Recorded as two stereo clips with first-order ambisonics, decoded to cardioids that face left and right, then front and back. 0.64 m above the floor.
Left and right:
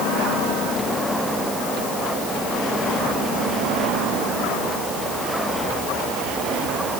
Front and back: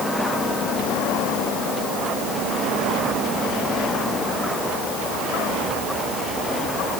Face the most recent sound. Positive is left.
No sound to turn to.